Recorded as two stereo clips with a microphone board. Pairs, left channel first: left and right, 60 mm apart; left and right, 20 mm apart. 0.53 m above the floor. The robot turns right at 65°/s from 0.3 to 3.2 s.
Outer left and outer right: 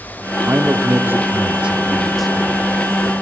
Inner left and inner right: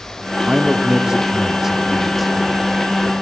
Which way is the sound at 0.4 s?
115° right.